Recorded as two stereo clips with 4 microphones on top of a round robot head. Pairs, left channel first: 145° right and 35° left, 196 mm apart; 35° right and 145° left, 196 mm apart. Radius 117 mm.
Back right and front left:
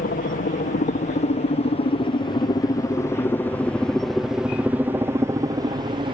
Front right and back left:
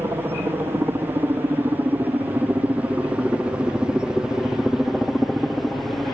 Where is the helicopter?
140° right; by 6.1 s 50° left.